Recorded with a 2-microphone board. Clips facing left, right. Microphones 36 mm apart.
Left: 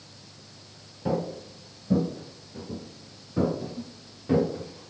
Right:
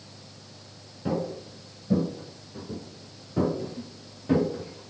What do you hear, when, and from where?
1.1 s footsteps: centre (ahead or behind), 1.8 m; by 4.9 s 5° right (ahead or behind), 2 m